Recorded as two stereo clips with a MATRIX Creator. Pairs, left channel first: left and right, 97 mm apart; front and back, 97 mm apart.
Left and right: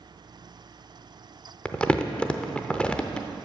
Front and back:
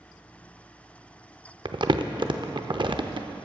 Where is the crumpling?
165° left, 0.5 m.